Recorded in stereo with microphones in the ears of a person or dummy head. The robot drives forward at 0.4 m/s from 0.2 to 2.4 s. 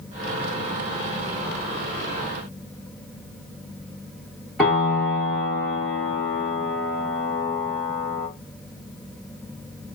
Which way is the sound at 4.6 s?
5° right (ahead or behind).